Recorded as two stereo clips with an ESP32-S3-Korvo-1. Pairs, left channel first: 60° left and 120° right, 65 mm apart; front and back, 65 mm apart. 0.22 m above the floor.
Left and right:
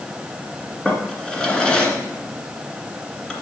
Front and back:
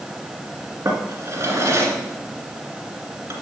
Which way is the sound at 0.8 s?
140° left.